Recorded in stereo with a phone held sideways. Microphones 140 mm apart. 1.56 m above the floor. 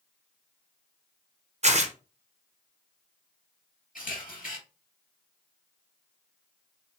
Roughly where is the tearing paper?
Right.